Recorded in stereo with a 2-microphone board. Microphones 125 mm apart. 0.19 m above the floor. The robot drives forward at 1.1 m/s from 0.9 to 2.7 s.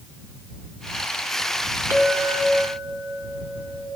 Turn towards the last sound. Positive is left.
turn(degrees=-15)  # may be behind; listen again after turning